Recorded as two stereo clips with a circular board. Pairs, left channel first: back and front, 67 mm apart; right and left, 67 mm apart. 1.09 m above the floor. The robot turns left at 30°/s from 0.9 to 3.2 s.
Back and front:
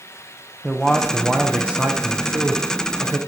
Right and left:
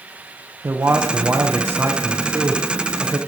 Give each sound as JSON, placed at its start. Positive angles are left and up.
{"t": 0.6, "sound": "a man speaking", "azimuth_deg": 85, "distance_m": 0.6}